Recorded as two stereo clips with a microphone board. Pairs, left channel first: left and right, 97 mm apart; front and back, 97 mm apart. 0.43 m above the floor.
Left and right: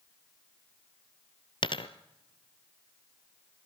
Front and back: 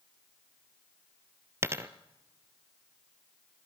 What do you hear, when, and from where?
1.6 s a dropped coin: 120° left, 1.0 m